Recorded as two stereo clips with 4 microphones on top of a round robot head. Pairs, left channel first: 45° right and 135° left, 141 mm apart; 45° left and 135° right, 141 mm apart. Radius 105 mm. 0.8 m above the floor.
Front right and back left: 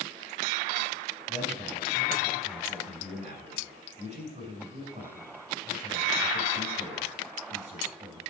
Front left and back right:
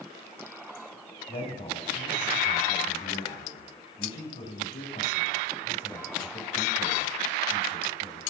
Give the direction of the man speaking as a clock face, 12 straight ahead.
9 o'clock.